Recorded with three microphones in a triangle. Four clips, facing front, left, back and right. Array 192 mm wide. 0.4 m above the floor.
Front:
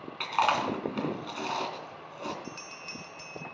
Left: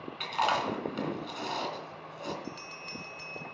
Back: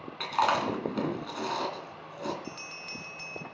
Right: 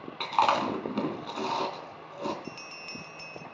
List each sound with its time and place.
0.2 s chewing: 95° right, 3 m
2.4 s a bell: 160° right, 2 m